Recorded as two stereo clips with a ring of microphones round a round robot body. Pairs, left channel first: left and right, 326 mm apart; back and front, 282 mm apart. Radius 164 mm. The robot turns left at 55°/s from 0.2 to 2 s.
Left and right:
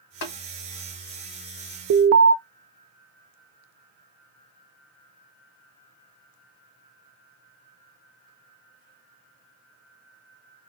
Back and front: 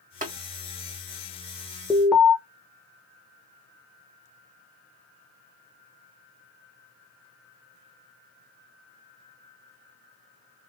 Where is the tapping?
60° left, 1.4 m; by 0.3 s 55° left, 1.4 m.